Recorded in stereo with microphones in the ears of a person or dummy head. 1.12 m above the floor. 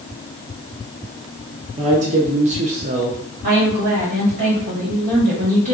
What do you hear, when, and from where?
1.8 s a man speaking: 35° right (ahead or behind), 0.5 m
3.4 s a woman speaking: 40° right (ahead or behind), 1.5 m